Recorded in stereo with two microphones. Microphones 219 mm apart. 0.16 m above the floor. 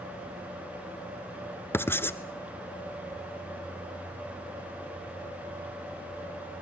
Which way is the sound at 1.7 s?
10° left (ahead or behind).